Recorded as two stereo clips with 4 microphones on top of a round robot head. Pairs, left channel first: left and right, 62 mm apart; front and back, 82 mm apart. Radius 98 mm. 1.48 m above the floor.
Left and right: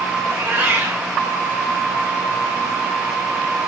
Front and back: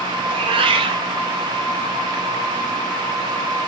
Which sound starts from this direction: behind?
A cat meowing, at 0.2 s.